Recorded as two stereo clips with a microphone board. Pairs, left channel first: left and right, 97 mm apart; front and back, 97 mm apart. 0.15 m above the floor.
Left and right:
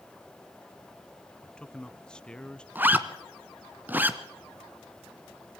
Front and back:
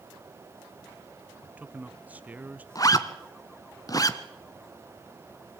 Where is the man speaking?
150° left, 1.2 m.